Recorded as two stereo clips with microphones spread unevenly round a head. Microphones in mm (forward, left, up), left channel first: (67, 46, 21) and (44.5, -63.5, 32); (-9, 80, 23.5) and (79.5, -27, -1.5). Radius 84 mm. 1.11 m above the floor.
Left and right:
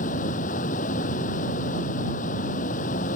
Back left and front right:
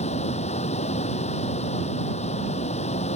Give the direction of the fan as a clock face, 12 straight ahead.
9 o'clock.